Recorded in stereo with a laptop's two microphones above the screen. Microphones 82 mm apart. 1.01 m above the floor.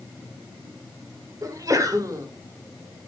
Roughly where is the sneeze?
Right.